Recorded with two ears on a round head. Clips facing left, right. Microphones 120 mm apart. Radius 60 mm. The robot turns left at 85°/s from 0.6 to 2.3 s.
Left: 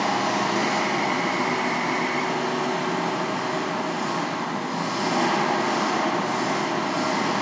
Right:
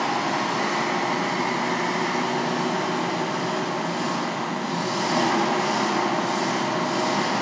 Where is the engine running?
45° left, 5.5 m; by 7.4 s 95° right, 5.5 m.